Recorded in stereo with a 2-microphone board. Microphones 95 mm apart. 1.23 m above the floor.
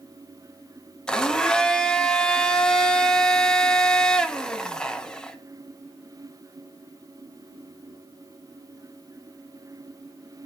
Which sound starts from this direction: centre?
A blender, at 1.1 s.